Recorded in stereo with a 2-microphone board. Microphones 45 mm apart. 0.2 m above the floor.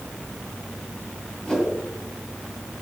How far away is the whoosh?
About 2 m.